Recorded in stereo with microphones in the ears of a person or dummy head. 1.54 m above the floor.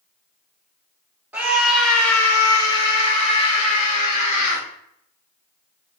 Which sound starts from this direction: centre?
A scream, at 1.3 s.